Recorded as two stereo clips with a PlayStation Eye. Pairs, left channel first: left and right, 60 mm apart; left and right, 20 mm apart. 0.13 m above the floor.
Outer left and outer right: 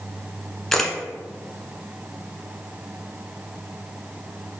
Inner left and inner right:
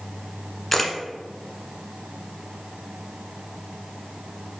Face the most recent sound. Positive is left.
turn(degrees=5)  # may be behind; listen again after turning